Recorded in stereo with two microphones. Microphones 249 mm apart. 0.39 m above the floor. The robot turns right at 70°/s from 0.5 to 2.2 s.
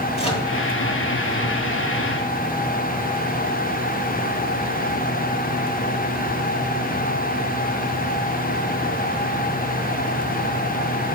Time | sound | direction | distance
0.2 | a microwave | 25° left (ahead or behind) | 1.7 m